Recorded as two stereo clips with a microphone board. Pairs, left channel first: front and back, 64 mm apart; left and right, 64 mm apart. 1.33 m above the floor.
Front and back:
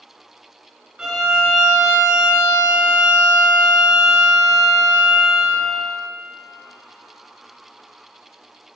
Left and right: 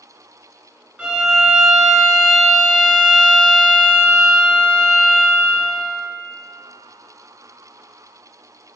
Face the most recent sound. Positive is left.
turn(degrees=-125)